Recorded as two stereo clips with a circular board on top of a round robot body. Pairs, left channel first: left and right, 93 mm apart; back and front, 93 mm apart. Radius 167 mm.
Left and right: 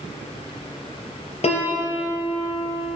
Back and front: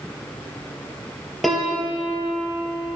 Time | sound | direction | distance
1.4 | a piano | 90° left | 3 m